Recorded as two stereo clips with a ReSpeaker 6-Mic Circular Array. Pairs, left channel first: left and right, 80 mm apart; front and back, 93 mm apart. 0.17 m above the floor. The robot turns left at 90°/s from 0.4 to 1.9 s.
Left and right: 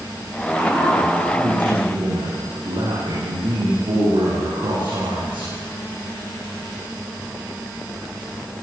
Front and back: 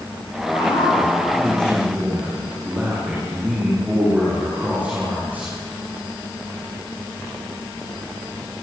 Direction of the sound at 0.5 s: 20° left.